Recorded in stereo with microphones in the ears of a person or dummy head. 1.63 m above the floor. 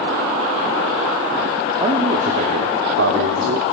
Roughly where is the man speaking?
Right.